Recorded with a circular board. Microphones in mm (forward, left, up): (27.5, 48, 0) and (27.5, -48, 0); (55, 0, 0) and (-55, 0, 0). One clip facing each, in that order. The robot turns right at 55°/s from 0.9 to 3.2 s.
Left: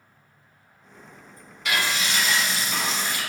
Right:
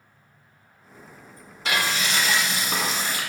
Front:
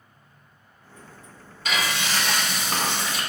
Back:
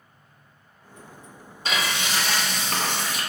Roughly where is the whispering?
I don't hear whispering.